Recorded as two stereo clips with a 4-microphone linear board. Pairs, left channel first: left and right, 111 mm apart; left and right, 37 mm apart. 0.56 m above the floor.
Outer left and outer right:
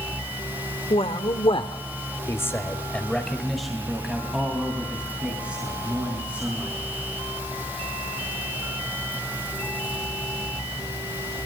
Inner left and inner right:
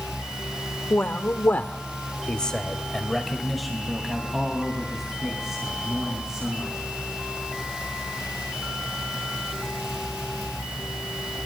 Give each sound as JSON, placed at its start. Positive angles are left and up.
{"t": 0.9, "sound": "a man speaking", "side_deg": 65, "distance_m": 1.6}